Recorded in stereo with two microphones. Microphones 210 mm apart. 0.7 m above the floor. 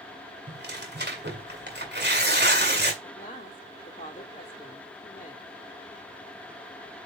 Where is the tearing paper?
55° right (ahead or behind), 1.9 m.